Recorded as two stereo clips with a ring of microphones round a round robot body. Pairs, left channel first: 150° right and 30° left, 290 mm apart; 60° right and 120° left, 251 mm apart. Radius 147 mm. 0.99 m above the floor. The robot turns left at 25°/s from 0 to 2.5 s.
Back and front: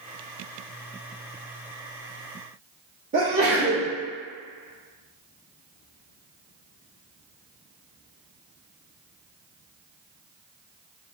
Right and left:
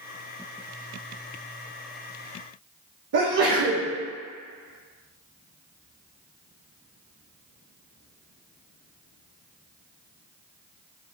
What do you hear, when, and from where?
3.1 s a sneeze: 95° left, 0.8 m